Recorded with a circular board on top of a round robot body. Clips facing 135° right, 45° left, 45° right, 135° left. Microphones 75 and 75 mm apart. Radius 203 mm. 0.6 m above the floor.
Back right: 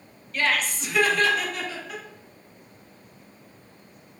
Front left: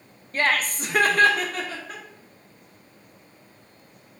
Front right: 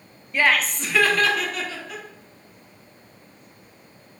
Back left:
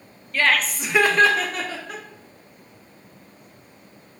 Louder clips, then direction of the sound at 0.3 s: Front left 2 dB, even; 15° left.